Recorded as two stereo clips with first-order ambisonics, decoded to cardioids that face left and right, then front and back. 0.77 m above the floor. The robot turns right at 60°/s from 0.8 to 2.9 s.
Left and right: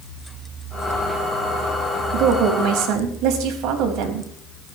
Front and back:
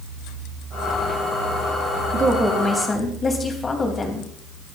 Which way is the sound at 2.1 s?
115° right.